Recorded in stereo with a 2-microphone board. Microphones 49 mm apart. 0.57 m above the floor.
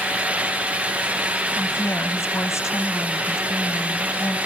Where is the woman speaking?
65° left (ahead or behind).